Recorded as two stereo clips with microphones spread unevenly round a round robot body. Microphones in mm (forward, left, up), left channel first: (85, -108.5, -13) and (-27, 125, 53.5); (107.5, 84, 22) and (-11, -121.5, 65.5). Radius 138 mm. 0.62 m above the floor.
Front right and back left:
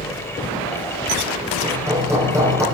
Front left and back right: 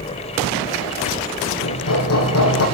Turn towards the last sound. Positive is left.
turn(degrees=35)